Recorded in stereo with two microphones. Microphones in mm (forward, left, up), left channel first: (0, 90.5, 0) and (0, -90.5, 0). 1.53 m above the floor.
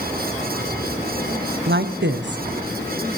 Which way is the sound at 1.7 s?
80° right.